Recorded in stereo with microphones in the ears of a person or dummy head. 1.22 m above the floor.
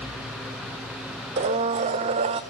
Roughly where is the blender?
Centre.